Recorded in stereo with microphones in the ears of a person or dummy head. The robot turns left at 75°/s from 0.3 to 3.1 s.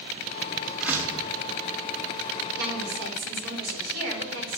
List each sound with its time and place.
0.8 s a door slam: 5° right, 2.5 m; by 1.3 s 40° right, 2.5 m
2.6 s a woman speaking: 70° right, 3 m; by 4.6 s 110° right, 3 m